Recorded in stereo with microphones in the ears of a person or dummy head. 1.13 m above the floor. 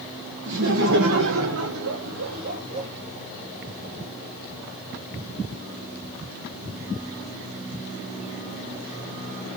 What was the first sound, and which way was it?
Laughter, 60° right (ahead or behind).